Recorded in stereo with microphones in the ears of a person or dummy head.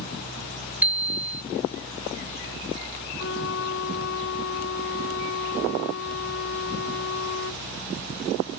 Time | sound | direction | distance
0.8 | a bicycle bell | 5° right (ahead or behind) | ?
3.2 | a flute | 75° left (ahead or behind) | ?